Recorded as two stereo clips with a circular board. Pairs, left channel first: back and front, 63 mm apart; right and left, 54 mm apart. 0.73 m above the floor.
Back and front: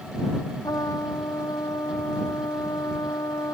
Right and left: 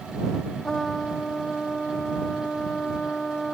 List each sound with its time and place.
0.6 s a trumpet: 170° right